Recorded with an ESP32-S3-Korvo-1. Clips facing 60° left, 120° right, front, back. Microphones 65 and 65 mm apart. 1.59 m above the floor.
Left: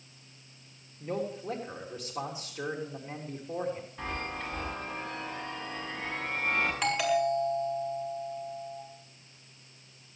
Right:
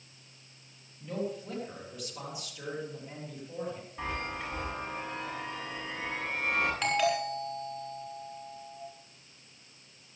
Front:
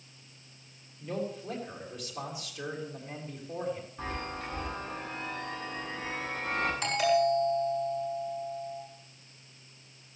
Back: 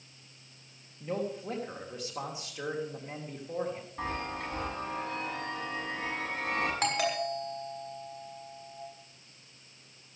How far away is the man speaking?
About 3.5 m.